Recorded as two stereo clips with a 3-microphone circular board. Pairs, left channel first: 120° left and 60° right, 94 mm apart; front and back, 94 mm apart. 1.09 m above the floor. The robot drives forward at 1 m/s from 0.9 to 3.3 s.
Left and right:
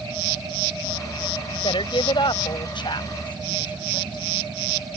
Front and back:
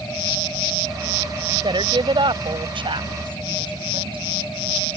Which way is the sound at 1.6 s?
145° left.